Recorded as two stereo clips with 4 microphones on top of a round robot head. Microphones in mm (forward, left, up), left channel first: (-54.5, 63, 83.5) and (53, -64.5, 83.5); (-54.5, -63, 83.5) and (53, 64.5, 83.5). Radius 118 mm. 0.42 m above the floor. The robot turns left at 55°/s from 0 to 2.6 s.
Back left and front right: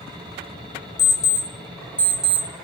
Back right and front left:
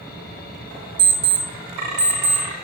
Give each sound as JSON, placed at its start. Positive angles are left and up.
{"t": 1.0, "sound": "an alarm clock", "azimuth_deg": 105, "distance_m": 0.7}